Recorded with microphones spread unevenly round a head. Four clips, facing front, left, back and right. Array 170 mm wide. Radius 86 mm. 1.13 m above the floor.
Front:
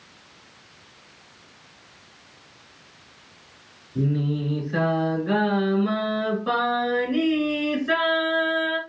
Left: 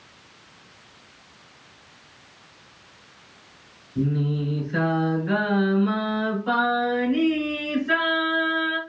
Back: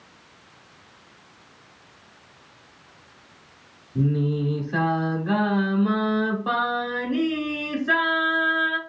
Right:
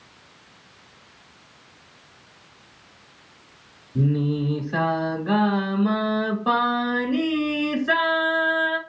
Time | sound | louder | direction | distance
4.0 | singing | right 2 dB, back 1 dB | 105° right | 1.2 m